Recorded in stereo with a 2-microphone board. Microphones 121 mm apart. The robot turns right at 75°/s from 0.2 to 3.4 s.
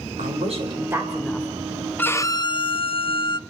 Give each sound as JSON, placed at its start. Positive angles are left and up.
{"t": 0.2, "sound": "a woman speaking", "azimuth_deg": -80, "distance_m": 4.0}
{"t": 2.0, "sound": "a violin", "azimuth_deg": 20, "distance_m": 0.6}